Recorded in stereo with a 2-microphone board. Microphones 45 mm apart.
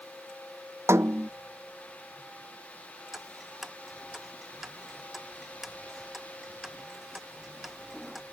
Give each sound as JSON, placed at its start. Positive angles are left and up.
{"t": 0.9, "sound": "a snare drum", "side_deg": -75}
{"t": 3.1, "sound": "ticking", "side_deg": -5}